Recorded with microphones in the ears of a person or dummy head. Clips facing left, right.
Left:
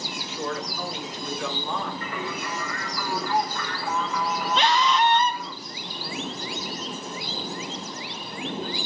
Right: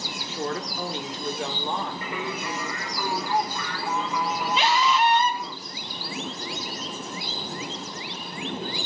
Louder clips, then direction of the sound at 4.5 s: Left 1 dB; 10° right (ahead or behind).